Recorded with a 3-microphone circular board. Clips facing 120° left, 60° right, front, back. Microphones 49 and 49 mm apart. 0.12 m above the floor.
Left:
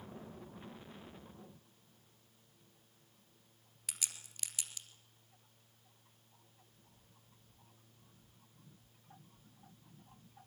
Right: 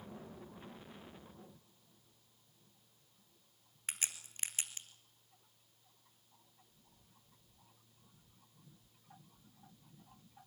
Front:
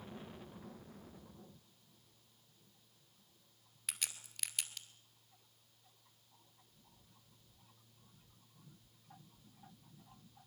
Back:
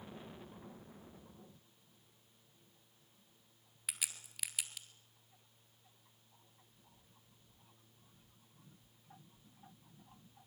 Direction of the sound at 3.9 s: 100° right.